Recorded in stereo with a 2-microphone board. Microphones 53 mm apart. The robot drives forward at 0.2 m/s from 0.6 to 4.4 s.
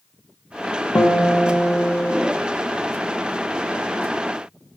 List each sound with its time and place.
0.9 s a guitar: 50° left (ahead or behind), 1.2 m; by 2.3 s 40° left (ahead or behind), 1.4 m